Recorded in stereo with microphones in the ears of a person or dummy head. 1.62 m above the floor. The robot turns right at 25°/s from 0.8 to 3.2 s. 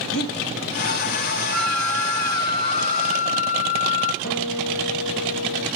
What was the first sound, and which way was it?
Breathing, 75° left (ahead or behind).